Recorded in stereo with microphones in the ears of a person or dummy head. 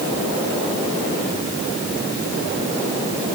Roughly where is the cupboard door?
I don't hear a cupboard door.